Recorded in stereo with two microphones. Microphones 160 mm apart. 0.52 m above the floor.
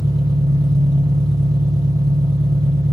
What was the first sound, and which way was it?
An engine running, 25° right (ahead or behind).